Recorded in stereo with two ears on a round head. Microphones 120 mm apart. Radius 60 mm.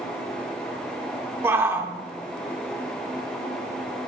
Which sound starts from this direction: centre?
A shout, at 1.4 s.